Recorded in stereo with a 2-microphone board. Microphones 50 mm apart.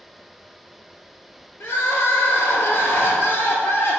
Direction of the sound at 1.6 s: 55° left (ahead or behind).